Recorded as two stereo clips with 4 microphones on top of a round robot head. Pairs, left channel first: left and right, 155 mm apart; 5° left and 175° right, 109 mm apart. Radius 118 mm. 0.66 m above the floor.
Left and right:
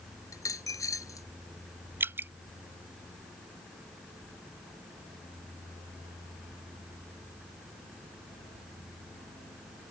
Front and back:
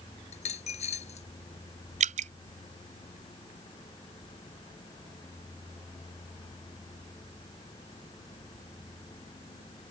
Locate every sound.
0.3 s a dropped coin: 20° left
2.0 s dripping: 170° right